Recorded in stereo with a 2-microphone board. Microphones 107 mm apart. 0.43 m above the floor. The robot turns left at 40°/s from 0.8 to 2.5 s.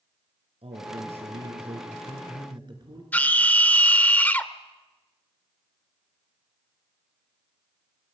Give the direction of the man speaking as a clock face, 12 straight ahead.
2 o'clock.